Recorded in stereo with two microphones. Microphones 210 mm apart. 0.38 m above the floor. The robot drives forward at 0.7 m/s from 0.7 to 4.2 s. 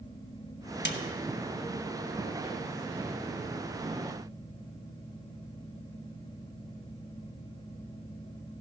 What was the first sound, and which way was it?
A snare drum, 55° left (ahead or behind).